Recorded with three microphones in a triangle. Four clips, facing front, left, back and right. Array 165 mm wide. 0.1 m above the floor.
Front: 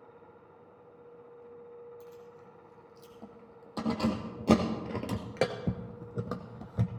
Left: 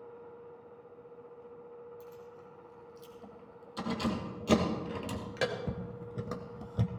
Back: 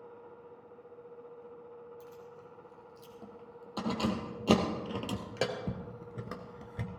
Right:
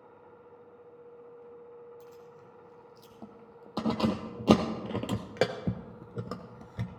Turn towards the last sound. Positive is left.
turn(degrees=30)